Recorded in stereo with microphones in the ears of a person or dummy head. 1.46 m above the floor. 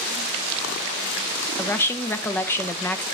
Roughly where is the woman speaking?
Centre.